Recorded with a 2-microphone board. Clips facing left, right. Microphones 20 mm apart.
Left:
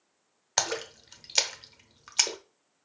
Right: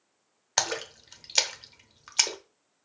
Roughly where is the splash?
Centre.